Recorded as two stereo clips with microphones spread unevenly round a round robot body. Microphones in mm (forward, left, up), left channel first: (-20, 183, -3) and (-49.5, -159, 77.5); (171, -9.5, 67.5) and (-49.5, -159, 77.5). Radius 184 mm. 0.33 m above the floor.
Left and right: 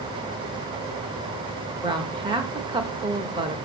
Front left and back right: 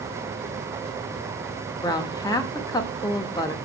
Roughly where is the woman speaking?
Ahead.